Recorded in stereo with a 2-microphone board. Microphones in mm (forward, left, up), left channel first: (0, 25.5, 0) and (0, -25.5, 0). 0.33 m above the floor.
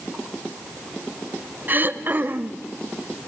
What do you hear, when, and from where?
1.7 s throat clearing: 40° right (ahead or behind), 0.8 m